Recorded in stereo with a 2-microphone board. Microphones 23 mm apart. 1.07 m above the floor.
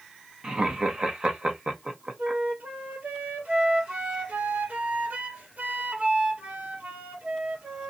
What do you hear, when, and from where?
0.4 s laughter: 40° right (ahead or behind), 1.0 m
2.2 s a flute: 80° right, 1.2 m